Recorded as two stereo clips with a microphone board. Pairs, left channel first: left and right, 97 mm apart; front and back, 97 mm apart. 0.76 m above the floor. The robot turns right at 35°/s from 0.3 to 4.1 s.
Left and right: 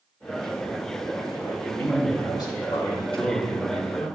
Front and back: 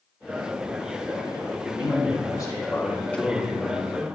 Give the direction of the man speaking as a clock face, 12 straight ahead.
11 o'clock.